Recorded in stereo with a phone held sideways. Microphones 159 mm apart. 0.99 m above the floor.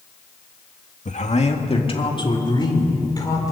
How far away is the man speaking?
About 1.7 m.